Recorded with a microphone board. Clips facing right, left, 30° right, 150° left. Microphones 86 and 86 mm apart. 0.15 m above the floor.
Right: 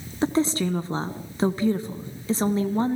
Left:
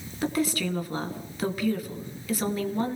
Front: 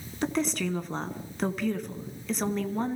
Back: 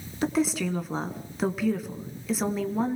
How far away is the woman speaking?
About 1.4 m.